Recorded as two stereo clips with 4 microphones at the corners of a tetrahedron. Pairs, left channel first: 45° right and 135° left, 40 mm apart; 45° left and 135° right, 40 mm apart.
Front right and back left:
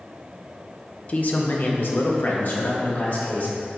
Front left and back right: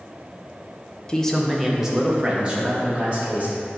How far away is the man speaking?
About 0.9 m.